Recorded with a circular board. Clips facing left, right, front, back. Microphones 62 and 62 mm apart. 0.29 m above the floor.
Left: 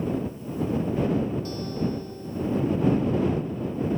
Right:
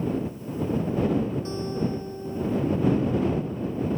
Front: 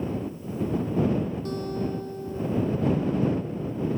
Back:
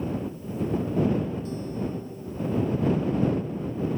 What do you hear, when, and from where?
1.4 s a guitar: 25° right